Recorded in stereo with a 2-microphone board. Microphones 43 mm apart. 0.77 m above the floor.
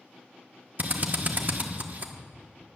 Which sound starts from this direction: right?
A drill, at 0.8 s.